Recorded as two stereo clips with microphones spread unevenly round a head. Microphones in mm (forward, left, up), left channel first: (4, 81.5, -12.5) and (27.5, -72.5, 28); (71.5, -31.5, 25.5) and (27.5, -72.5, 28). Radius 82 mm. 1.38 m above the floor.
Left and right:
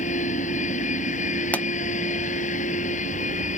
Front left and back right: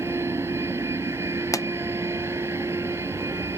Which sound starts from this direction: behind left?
A machine running, at 0.0 s.